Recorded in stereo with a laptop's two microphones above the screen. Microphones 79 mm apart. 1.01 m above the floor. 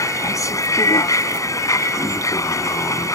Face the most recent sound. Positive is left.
turn(degrees=45)  # may be behind; listen again after turning